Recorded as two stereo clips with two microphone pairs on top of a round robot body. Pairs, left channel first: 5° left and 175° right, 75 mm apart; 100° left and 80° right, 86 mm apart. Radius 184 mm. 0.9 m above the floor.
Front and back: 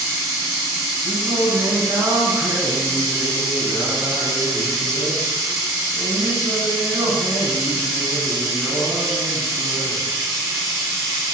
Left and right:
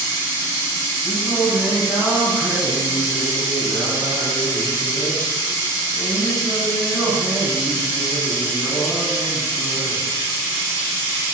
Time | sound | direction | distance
0.0 | running water | 155° left | 1.9 m
1.0 | singing | 170° right | 1.5 m